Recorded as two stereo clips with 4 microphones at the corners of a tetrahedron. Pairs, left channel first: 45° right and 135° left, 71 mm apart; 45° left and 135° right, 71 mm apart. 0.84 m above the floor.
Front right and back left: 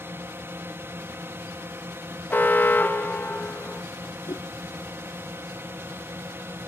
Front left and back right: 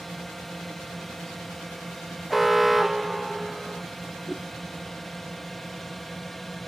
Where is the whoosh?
55° right.